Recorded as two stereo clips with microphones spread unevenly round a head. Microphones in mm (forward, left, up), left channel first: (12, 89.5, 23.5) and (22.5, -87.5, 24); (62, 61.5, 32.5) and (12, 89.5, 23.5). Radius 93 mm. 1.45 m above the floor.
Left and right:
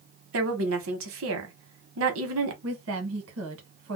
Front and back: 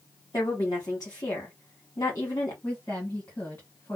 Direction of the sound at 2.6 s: 105° right.